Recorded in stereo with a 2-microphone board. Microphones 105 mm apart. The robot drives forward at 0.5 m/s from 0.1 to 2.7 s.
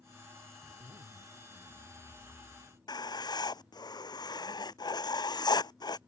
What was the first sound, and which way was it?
A zipper, 70° right (ahead or behind).